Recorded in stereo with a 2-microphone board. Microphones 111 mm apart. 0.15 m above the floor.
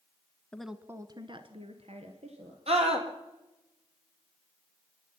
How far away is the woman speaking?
About 1.0 m.